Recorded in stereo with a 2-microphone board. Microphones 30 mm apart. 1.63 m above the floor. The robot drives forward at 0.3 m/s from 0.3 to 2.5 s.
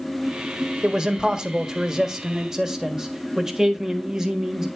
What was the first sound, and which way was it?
A man speaking, 25° right (ahead or behind).